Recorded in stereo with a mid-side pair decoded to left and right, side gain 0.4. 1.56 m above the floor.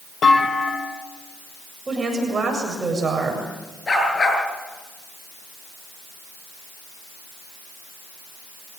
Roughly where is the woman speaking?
Ahead right.